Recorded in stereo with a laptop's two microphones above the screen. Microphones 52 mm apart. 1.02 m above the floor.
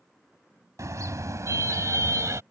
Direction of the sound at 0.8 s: 80° right.